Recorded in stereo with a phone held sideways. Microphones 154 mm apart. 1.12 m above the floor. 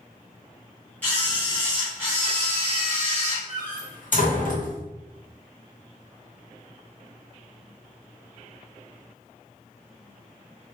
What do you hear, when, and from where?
1.0 s a camera shutter: 10° left (ahead or behind), 1.6 m
3.5 s a door slam: 60° left (ahead or behind), 1.1 m